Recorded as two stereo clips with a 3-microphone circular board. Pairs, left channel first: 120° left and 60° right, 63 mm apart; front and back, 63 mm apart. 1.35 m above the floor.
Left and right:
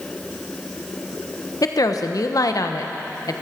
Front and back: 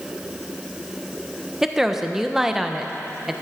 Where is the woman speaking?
95° left, 1.0 m.